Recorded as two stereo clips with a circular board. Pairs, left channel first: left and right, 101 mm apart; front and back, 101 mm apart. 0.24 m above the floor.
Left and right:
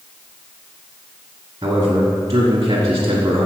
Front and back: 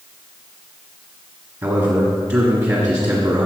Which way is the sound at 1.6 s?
135° right.